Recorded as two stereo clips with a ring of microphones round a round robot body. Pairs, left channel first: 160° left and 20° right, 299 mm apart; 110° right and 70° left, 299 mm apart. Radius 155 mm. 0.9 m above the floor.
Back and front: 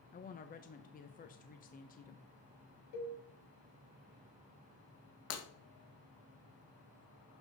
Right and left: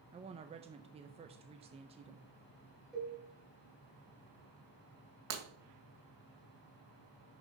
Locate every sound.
0.1 s a woman speaking: 120° left, 0.7 m
2.9 s a cowbell: 160° left, 3 m
5.3 s breaking glass: 115° left, 2 m